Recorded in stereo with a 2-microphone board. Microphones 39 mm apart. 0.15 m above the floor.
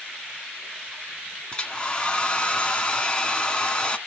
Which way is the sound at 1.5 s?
20° left (ahead or behind).